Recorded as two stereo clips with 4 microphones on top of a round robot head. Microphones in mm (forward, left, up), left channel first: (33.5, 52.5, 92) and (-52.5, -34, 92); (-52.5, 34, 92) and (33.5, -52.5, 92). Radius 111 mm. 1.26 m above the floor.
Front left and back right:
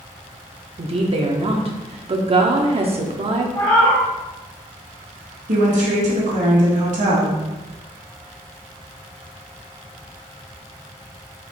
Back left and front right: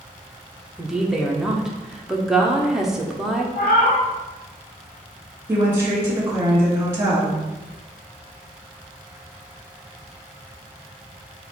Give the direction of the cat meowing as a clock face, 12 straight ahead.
9 o'clock.